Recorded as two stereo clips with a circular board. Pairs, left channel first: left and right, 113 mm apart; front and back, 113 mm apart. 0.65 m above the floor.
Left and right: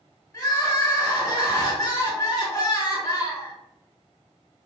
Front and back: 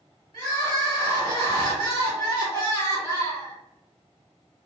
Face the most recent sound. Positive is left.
turn(degrees=40)